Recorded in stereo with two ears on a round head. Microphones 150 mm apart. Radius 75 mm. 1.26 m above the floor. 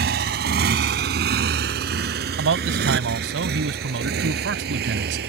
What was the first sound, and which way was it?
A motorcycle, 65° right (ahead or behind).